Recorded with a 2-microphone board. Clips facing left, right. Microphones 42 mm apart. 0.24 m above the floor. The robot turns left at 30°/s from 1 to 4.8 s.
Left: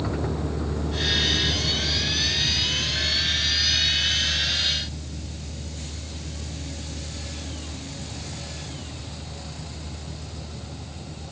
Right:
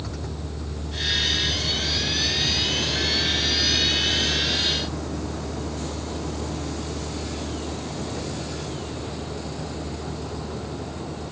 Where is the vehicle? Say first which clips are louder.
Left 6 dB; 25° left (ahead or behind); by 11.3 s 60° right (ahead or behind).